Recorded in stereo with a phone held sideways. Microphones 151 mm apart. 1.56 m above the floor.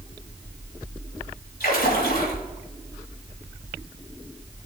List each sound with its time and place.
1.6 s a splash: 80° left, 3 m